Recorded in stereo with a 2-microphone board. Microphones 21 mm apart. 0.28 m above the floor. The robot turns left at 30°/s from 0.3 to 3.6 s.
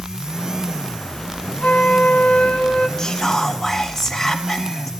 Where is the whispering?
30° left (ahead or behind), 1.9 m; by 4.9 s 10° left (ahead or behind), 1.9 m.